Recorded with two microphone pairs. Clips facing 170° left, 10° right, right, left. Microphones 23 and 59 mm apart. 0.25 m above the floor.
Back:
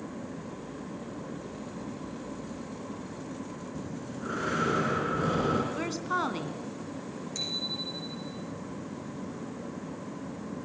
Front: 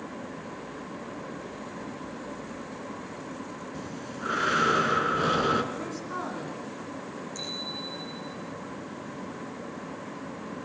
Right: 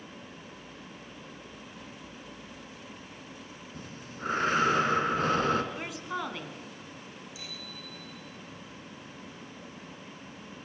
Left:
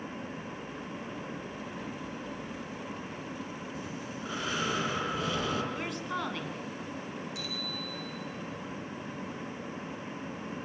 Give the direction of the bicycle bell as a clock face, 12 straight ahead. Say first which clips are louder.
Back 3 dB, left 6 dB; 8 o'clock.